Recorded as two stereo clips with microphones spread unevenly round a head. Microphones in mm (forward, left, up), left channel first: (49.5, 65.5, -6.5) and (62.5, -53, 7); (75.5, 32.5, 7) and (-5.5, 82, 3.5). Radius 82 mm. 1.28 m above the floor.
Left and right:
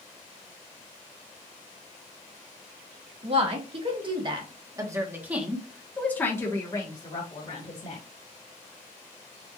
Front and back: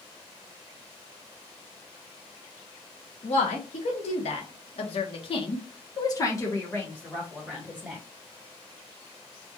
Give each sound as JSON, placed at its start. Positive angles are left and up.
{"t": 3.2, "sound": "a woman speaking", "azimuth_deg": -45, "distance_m": 1.8}